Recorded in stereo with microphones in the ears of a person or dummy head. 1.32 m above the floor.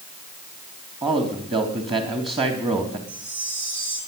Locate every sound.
1.0 s a man speaking: 25° right (ahead or behind), 3 m
3.1 s a chime: 70° right (ahead or behind), 3.5 m